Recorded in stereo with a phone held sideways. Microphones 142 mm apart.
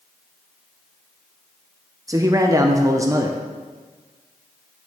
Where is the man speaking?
25° right (ahead or behind), 0.6 m.